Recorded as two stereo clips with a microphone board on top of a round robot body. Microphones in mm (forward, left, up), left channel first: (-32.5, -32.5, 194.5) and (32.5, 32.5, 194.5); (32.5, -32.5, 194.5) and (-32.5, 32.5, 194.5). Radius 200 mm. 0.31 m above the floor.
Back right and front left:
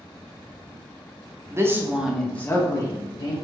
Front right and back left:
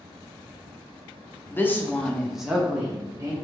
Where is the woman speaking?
5° left, 1.1 m; by 3.3 s 160° right, 1.3 m.